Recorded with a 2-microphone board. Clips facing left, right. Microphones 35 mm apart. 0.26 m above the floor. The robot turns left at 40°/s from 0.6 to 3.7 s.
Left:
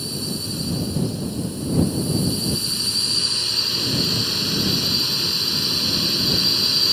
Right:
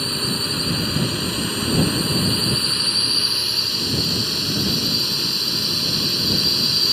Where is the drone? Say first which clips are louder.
Right 5 dB; 55° right; by 6.9 s straight behind.